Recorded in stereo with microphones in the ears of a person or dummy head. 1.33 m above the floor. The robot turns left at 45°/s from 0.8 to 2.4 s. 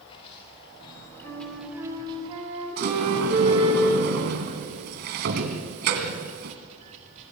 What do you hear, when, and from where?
0.0 s running water: 35° left, 7.5 m; by 7.3 s 35° right, 7.5 m
1.2 s a flute: 20° left, 4.5 m; by 3.8 s 35° right, 4.5 m
2.8 s a sliding door: 60° right (ahead or behind), 2.5 m